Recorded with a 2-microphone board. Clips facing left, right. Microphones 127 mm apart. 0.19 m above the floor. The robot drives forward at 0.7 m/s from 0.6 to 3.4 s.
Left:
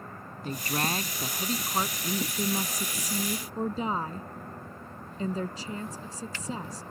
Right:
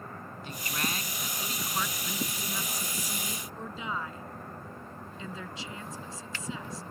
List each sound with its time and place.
0.4 s a woman speaking: 45° left (ahead or behind); by 2.3 s 35° left (ahead or behind)
2.4 s a woman speaking: 55° left (ahead or behind); by 6.8 s 45° left (ahead or behind)